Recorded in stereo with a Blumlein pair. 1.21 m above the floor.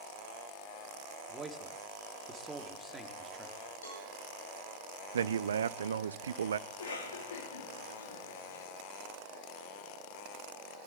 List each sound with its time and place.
1.3 s a man speaking: 10° right, 3 m
3.8 s a cowbell: 70° left, 7.5 m
5.1 s a man speaking: 70° right, 0.7 m
6.7 s a cough: 65° left, 3 m